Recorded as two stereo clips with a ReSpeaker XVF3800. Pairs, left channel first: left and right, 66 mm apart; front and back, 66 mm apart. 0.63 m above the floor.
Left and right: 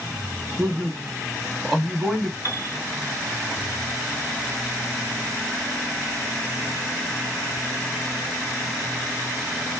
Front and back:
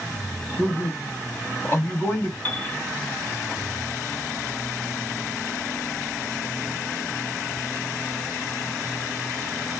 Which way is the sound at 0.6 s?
5° left.